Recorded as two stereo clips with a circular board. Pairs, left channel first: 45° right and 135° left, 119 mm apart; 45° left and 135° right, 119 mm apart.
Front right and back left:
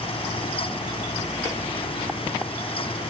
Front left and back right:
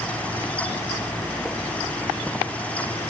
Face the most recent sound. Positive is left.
No sound to turn to.